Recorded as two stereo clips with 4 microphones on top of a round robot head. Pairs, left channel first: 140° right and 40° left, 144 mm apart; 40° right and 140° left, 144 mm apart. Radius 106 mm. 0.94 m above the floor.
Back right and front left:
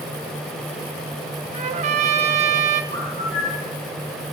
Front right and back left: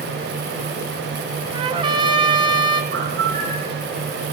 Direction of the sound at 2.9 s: 165° right.